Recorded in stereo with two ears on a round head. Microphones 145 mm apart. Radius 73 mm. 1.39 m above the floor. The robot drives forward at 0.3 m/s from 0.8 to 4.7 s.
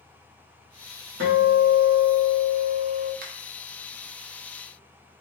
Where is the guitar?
80° right, 1.1 m; by 3.1 s 65° right (ahead or behind), 1.2 m.